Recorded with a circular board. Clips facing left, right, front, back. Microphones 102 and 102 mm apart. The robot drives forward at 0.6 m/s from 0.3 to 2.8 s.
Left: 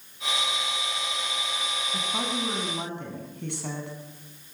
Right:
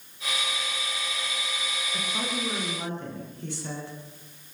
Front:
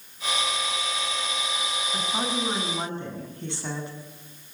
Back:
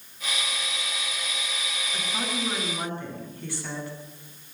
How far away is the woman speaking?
About 10 m.